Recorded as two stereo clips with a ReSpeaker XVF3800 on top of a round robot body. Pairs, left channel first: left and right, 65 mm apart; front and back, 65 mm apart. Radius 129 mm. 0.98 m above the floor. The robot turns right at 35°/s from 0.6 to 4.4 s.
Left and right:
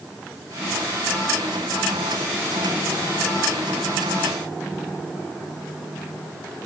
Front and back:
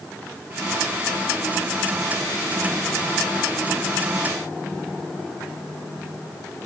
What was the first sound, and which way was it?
Only background noise.